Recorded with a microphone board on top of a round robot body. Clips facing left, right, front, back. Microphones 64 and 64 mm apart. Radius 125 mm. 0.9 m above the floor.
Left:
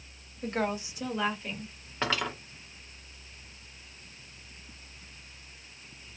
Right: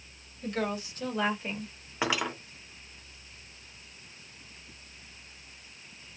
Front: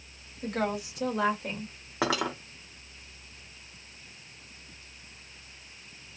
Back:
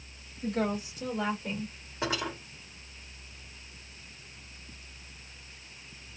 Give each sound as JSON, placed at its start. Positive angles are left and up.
{"t": 0.4, "sound": "a woman speaking", "azimuth_deg": 40, "distance_m": 1.4}
{"t": 2.0, "sound": "cutlery clinking", "azimuth_deg": -10, "distance_m": 0.6}